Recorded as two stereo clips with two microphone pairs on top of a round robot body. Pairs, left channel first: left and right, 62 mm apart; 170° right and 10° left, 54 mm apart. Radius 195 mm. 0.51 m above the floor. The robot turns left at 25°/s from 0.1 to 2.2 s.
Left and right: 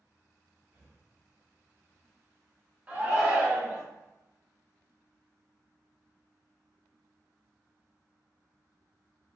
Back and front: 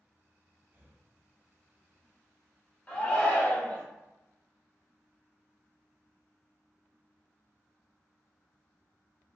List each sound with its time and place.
0.7 s breathing: 50° right, 1.1 m; by 1.0 s 60° right, 1.1 m
2.9 s a shout: 155° right, 1.4 m